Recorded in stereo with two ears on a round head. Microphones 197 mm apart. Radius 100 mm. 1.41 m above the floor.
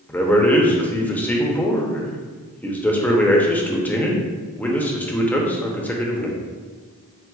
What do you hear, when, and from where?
0.1 s a man speaking: 5° left (ahead or behind), 0.6 m